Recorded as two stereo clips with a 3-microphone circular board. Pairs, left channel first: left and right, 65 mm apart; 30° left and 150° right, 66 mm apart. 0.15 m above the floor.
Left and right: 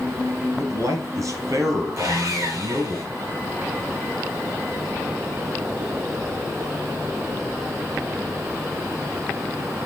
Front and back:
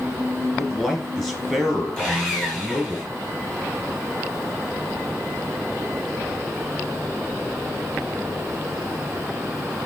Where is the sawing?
50° right, 4.5 m.